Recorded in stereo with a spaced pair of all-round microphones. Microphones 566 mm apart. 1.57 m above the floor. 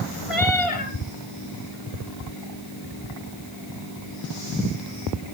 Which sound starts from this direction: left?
A cat meowing, at 0.3 s.